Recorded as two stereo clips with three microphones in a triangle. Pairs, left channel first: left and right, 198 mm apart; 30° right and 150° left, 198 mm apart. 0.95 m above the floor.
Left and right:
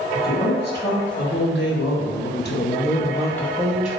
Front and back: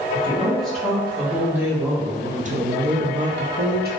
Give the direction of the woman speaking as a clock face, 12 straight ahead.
10 o'clock.